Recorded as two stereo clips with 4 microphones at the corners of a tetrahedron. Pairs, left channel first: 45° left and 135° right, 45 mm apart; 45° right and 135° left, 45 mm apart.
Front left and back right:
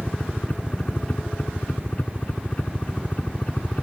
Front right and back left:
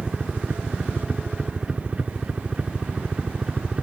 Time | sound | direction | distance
0.0 | a helicopter | 85° left | ?